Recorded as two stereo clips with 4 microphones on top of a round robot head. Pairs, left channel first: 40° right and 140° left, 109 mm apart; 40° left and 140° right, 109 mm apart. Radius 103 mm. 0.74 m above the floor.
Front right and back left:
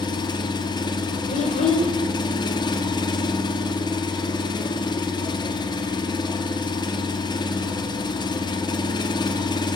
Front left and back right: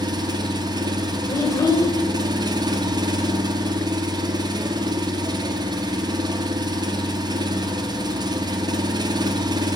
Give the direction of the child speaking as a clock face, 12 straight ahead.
1 o'clock.